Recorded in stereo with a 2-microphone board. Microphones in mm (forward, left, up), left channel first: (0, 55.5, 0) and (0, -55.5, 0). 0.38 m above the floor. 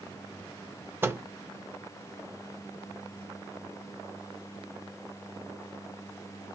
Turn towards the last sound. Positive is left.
turn(degrees=-20)  # may be behind; listen again after turning